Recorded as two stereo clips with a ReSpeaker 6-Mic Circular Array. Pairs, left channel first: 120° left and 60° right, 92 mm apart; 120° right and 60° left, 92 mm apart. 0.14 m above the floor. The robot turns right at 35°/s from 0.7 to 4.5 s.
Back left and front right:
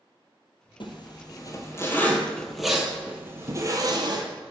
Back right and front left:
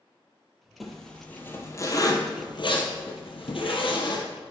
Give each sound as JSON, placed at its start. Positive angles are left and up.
{"t": 0.8, "sound": "a zipper", "azimuth_deg": 150, "distance_m": 1.3}